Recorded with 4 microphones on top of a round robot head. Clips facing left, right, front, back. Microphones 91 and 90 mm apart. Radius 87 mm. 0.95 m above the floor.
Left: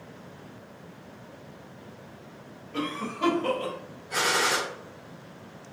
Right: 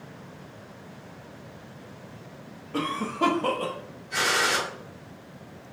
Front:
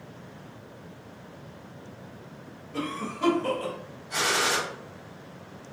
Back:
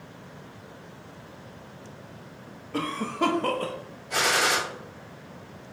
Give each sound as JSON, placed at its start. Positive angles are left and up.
{"t": 2.7, "sound": "a cough", "azimuth_deg": -145, "distance_m": 0.8}
{"t": 4.1, "sound": "a gunshot", "azimuth_deg": 150, "distance_m": 1.9}